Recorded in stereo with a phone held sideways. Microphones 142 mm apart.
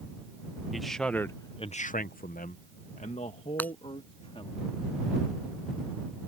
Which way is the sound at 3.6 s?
10° left (ahead or behind).